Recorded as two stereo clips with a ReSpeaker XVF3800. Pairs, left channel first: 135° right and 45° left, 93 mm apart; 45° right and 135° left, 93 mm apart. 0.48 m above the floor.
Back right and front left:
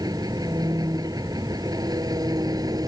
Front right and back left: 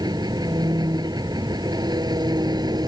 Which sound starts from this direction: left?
An engine running, at 0.0 s.